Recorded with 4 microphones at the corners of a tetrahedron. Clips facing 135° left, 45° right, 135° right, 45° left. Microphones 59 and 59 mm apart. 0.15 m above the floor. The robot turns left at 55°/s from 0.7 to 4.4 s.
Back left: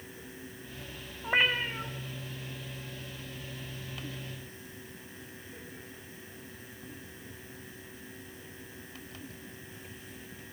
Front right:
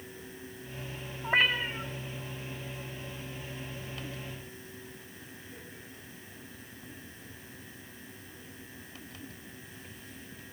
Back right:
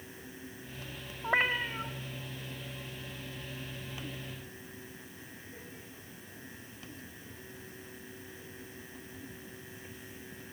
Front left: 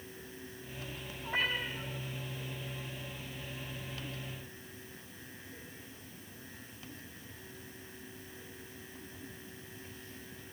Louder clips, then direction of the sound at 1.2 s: Front right 1 dB, back right 5 dB; 140° right.